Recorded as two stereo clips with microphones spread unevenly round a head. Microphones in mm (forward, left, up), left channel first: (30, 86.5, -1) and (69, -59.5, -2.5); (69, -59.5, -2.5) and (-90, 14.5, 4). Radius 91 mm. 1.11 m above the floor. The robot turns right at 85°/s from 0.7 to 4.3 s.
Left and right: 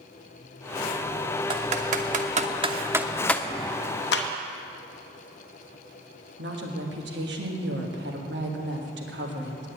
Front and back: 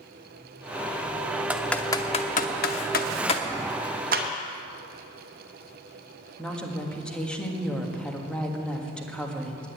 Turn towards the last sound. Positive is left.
turn(degrees=-110)